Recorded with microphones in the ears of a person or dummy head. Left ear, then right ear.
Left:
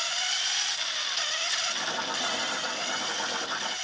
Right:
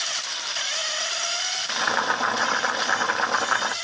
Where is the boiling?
45° right (ahead or behind), 0.8 m.